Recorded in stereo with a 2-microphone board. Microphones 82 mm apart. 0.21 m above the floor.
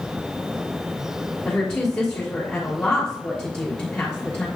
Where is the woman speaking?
10° left (ahead or behind), 3 m.